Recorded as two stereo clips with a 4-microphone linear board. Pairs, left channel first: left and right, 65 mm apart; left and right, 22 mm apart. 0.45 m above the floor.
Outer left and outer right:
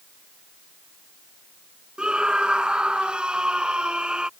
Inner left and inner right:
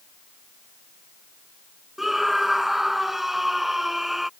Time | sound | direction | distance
2.0 | a scream | 15° right (ahead or behind) | ?